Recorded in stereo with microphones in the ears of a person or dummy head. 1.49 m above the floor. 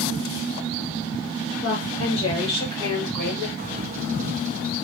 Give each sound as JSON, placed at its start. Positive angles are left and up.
{"t": 1.6, "sound": "a woman speaking", "side_deg": 50, "distance_m": 2.0}
{"t": 3.6, "sound": "a bird", "side_deg": -40, "distance_m": 0.5}